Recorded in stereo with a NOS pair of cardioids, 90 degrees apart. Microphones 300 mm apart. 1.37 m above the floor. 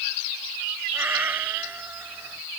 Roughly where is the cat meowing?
Ahead.